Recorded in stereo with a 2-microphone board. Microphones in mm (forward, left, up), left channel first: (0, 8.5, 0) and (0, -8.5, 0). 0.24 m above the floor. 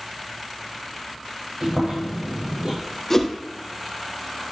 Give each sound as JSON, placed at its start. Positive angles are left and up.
{"t": 1.6, "sound": "chewing", "side_deg": -75, "distance_m": 6.5}
{"t": 3.1, "sound": "a whoosh", "side_deg": 20, "distance_m": 1.7}